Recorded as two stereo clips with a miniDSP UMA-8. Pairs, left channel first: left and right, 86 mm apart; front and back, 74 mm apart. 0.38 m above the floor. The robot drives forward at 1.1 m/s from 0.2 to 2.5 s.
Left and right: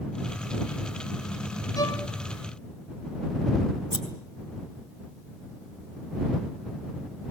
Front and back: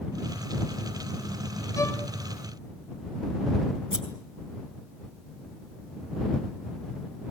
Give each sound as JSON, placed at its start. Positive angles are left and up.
{"t": 1.8, "sound": "a violin", "azimuth_deg": 45, "distance_m": 2.5}
{"t": 3.9, "sound": "scissors", "azimuth_deg": 100, "distance_m": 4.0}